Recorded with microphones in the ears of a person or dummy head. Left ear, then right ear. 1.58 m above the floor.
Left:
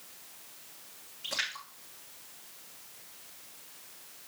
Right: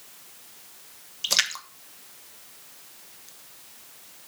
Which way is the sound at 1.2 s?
80° right.